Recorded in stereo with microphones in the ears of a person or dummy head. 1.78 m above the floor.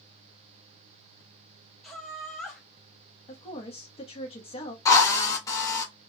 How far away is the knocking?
I don't hear knocking.